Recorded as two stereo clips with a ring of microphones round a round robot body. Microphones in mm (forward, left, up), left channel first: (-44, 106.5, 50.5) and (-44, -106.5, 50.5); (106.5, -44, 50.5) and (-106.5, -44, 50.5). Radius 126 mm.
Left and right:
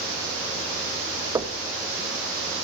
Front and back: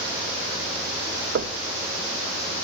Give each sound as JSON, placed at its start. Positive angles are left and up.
{"t": 1.4, "sound": "knocking", "azimuth_deg": -160, "distance_m": 1.1}